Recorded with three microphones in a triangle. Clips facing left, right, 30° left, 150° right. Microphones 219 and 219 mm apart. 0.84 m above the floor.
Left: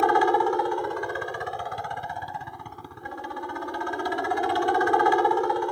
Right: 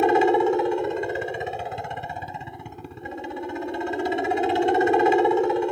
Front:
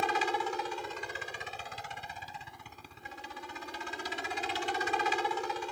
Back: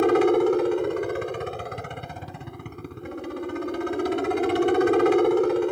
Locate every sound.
0.0 s a helicopter: 155° right